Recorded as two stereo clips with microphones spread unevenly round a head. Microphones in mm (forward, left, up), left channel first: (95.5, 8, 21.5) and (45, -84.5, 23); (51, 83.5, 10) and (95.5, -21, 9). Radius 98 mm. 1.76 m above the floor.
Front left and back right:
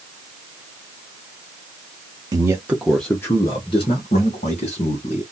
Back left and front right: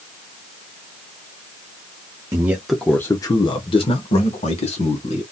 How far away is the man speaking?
About 0.6 m.